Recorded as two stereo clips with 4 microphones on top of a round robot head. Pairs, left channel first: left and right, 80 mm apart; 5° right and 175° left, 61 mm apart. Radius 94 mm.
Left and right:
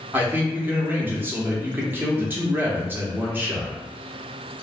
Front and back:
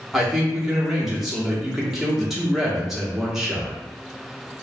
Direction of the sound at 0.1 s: 105° right.